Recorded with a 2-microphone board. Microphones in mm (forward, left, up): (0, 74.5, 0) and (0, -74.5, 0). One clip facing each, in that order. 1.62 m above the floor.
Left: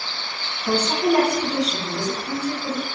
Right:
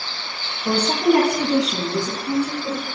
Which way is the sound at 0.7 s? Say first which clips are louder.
Right 2 dB; 55° right (ahead or behind).